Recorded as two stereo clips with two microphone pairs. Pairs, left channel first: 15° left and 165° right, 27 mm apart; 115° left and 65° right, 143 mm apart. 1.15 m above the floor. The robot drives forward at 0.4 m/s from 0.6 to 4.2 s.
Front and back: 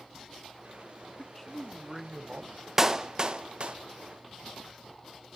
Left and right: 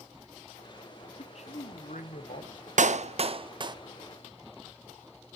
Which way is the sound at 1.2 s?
85° left.